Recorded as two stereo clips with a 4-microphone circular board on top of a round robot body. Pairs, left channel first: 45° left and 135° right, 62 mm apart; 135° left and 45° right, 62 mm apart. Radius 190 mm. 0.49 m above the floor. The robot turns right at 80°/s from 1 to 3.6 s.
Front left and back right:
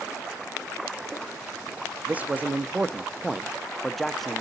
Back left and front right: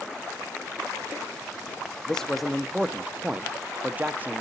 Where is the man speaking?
165° right, 0.7 m; by 4.4 s 40° right, 0.7 m.